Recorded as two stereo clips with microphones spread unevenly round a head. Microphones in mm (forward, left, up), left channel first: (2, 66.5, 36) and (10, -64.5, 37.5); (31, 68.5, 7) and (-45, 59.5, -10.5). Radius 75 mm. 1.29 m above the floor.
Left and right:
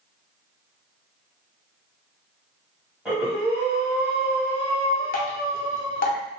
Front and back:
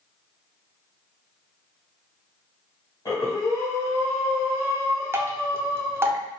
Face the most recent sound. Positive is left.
turn(degrees=125)